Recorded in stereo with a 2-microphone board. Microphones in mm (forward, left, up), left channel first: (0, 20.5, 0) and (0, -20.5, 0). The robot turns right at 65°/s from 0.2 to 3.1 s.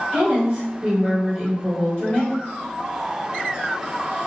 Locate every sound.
0.1 s a woman speaking: 70° right, 1.4 m; by 2.4 s 70° left, 1.4 m